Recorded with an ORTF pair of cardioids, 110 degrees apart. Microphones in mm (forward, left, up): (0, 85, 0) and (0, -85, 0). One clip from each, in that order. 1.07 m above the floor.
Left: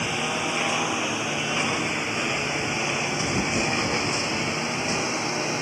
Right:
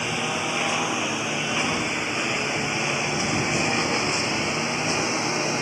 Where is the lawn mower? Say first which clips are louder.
Even; 5° right; by 5.6 s 15° right.